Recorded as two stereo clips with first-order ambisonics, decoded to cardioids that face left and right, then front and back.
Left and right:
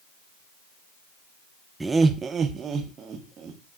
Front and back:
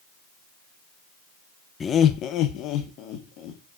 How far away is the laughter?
About 0.5 m.